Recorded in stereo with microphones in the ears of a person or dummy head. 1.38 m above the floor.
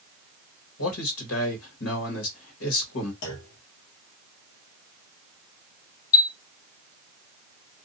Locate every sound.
0.8 s a man speaking: 80° left, 1.4 m
3.2 s a clunk: 70° left (ahead or behind), 1.1 m
6.1 s a chime: 20° left (ahead or behind), 0.8 m